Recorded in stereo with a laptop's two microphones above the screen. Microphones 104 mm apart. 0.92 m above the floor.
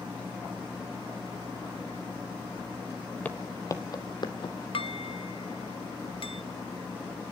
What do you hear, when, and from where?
3.2 s footsteps: 15° left (ahead or behind), 1.0 m; by 4.5 s 55° left (ahead or behind), 1.5 m
4.7 s dishes clattering: 60° left (ahead or behind), 0.9 m